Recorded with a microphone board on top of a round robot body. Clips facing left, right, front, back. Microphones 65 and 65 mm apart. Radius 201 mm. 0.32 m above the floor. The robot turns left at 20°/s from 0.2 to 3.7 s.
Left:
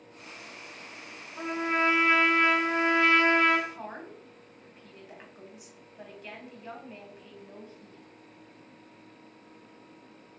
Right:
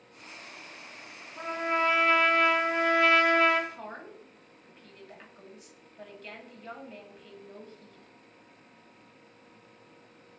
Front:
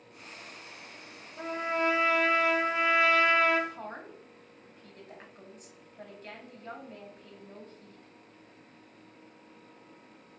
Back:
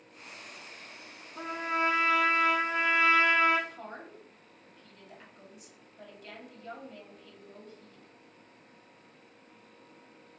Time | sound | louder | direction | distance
1.4 | a trumpet | left 1 dB, even | 165° left | 1.6 m
3.7 | a woman speaking | left 1 dB, front 2 dB | 20° left | 1.8 m